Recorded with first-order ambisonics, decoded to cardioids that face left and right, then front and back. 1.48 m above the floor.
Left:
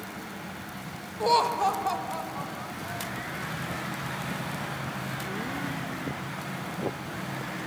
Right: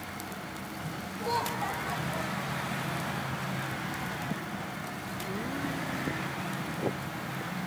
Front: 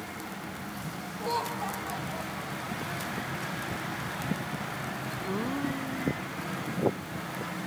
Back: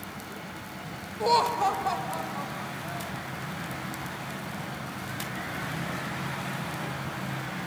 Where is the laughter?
130° left, 0.5 m; by 3.3 s 135° left, 3 m.